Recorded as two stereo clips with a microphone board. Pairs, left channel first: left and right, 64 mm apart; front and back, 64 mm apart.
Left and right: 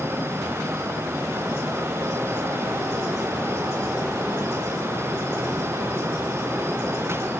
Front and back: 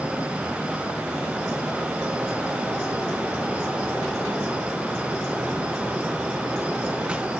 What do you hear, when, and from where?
Only background noise.